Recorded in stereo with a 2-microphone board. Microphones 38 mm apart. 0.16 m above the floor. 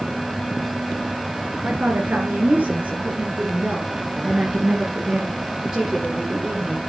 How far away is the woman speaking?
About 2.5 m.